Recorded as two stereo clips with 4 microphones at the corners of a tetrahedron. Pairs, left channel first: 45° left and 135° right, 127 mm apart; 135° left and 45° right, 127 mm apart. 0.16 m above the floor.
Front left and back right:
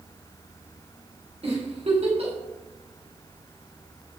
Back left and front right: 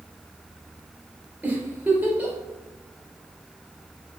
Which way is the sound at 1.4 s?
120° right.